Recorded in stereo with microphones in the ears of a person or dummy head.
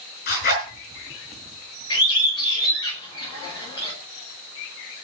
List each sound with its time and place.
0.3 s a zipper: 45° left (ahead or behind), 5 m
1.9 s a bird: 20° left (ahead or behind), 5 m